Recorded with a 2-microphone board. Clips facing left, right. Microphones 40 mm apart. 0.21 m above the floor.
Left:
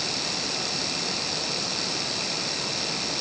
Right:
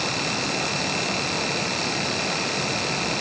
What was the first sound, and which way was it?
Only background noise.